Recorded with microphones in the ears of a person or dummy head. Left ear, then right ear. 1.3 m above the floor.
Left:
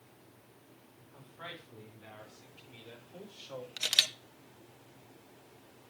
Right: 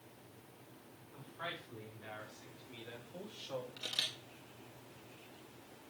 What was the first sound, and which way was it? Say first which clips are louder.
A man speaking: right 2 dB; centre (ahead or behind).